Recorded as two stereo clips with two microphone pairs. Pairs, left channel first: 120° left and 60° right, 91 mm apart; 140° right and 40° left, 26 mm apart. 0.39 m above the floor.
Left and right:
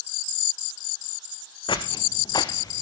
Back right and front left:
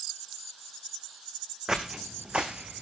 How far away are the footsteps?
About 1.7 m.